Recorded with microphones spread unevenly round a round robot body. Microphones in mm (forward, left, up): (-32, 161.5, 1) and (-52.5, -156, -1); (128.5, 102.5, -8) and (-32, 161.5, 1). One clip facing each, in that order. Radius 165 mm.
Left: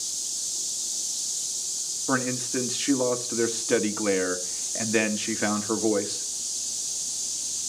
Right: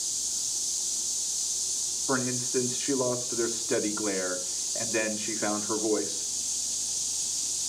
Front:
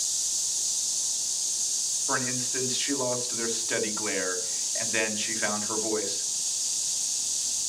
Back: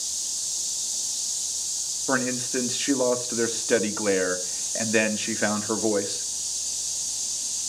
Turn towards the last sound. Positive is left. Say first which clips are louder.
# left 2 dB, back 7 dB
turn(degrees=120)